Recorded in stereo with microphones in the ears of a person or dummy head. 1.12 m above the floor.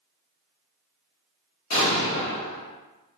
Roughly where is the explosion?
Left.